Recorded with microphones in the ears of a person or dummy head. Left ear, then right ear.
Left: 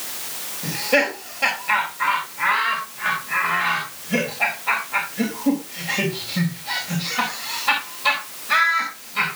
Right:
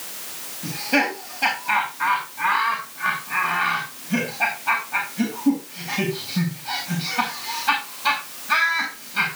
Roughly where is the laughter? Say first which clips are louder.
Left 2 dB; centre.